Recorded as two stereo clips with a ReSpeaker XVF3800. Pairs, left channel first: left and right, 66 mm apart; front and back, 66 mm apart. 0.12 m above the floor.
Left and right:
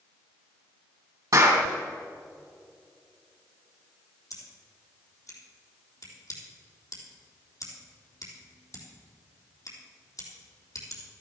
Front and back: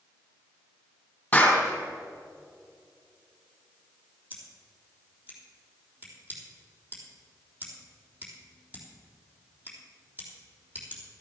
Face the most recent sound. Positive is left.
turn(degrees=125)